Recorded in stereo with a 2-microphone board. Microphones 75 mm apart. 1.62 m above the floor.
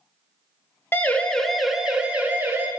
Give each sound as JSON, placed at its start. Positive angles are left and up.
{"t": 0.9, "sound": "a siren", "side_deg": 25, "distance_m": 2.0}